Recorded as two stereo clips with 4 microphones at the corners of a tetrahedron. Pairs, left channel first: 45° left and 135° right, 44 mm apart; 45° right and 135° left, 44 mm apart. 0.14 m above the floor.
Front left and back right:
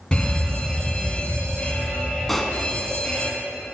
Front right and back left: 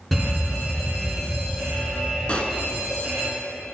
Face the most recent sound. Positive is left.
turn(degrees=-35)